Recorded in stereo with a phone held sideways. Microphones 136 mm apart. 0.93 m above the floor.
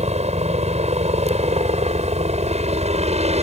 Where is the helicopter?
50° right (ahead or behind).